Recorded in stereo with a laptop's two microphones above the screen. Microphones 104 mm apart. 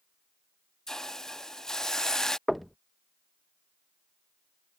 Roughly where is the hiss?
Centre.